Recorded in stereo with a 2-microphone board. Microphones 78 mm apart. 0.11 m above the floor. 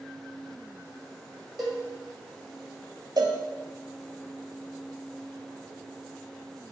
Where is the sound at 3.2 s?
60° right (ahead or behind), 0.5 m.